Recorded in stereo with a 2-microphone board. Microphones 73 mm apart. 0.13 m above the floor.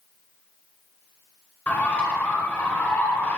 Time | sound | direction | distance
1.7 | a bird | 25° left (ahead or behind) | 1.1 m